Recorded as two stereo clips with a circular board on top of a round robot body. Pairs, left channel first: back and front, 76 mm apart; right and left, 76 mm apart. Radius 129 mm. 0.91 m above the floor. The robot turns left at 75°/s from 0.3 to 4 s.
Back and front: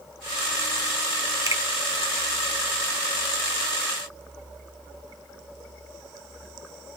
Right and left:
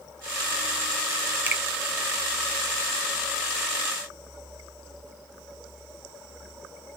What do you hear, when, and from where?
1.5 s a finger snap: 30° left, 0.8 m; by 1.6 s 20° left, 0.8 m